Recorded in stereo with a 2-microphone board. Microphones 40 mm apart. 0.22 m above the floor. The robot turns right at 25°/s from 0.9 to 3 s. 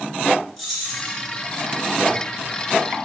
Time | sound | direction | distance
0.6 | keys jangling | 5° left (ahead or behind) | 2 m